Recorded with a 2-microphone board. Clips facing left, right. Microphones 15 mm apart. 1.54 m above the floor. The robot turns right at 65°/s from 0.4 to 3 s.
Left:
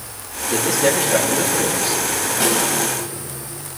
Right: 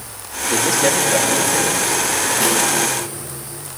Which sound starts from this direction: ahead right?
A man speaking, at 0.5 s.